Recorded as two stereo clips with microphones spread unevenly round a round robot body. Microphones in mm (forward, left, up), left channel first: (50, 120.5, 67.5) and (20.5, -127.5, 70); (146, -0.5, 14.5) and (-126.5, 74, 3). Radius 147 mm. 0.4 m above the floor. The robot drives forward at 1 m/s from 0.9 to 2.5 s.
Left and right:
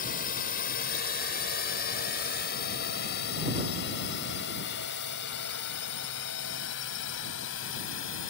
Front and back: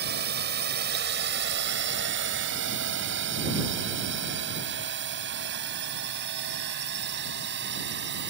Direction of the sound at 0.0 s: 125° left.